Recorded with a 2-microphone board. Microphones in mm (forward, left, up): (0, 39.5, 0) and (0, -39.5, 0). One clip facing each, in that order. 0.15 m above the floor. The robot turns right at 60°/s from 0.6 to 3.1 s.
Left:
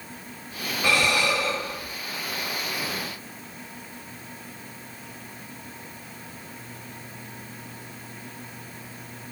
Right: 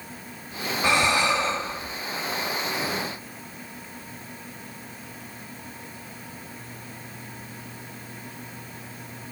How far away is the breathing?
About 1.0 m.